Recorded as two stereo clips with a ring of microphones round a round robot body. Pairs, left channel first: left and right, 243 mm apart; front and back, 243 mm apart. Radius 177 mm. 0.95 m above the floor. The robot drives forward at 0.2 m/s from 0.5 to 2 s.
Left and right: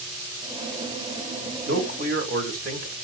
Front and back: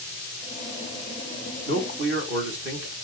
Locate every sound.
1.7 s a man speaking: 140° right, 1.1 m; by 2.9 s 145° right, 1.1 m